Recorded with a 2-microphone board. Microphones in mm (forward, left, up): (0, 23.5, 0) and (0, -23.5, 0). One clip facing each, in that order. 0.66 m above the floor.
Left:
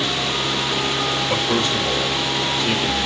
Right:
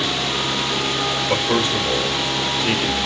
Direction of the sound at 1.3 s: 20° right (ahead or behind).